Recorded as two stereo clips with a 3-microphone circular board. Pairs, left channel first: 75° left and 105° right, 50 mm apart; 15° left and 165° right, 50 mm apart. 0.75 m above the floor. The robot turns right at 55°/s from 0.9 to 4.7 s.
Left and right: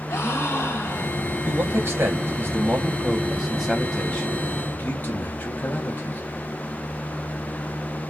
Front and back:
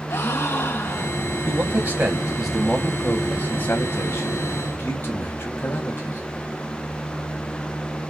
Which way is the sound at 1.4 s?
135° right.